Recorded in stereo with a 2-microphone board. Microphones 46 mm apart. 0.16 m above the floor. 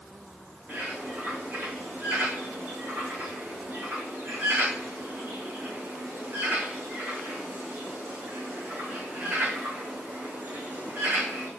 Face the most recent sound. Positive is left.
turn(degrees=-35)  # may be behind; listen again after turning